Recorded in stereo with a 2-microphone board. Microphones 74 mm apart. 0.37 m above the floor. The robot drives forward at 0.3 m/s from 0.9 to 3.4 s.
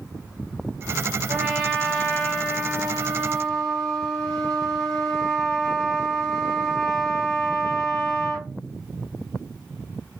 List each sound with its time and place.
1.3 s a trumpet: 5° left (ahead or behind), 1.5 m; by 8.5 s centre (ahead or behind), 2 m